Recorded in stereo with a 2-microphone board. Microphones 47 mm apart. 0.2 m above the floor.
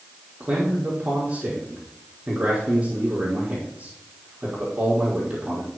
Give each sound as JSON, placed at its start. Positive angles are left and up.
{"t": 0.4, "sound": "a man speaking", "side_deg": -30, "distance_m": 5.5}